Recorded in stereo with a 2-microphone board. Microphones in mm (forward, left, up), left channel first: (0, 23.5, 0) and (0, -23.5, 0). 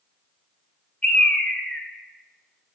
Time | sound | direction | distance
1.0 | a bird | 30° left (ahead or behind) | 0.6 m